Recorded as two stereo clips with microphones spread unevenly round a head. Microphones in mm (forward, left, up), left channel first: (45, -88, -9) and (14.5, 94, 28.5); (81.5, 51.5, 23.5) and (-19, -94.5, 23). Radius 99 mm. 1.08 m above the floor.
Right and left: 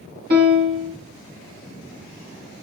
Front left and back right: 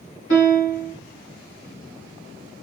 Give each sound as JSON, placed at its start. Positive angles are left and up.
{"t": 0.3, "sound": "a piano", "azimuth_deg": 65, "distance_m": 1.7}